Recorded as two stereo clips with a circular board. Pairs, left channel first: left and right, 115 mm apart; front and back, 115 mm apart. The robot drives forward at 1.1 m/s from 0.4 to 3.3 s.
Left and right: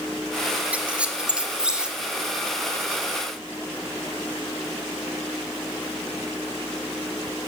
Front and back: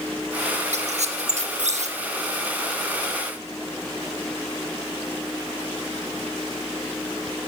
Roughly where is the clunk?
No clunk in this recording.